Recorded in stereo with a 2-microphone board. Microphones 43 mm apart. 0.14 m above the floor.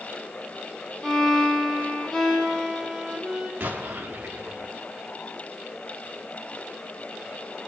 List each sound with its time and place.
1.0 s a violin: 15° left (ahead or behind), 2.5 m
3.6 s an explosion: 35° right (ahead or behind), 5.5 m